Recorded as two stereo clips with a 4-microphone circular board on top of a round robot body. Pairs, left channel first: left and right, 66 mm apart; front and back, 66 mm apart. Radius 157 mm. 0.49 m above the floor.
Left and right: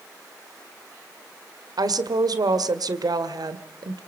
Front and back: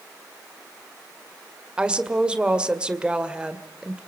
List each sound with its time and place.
1.8 s a woman speaking: 105° right, 1.9 m